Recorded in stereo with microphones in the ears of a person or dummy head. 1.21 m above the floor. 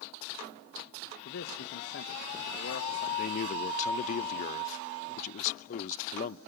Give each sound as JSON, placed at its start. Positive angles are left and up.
{"t": 1.2, "sound": "a man speaking", "side_deg": 60, "distance_m": 1.6}
{"t": 3.2, "sound": "a man speaking", "side_deg": 40, "distance_m": 0.6}